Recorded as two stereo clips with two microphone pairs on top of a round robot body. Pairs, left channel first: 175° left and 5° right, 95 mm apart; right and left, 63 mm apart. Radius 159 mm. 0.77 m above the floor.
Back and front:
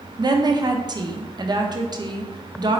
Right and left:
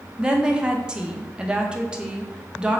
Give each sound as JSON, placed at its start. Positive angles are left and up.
{"t": 0.2, "sound": "a woman speaking", "azimuth_deg": 20, "distance_m": 0.7}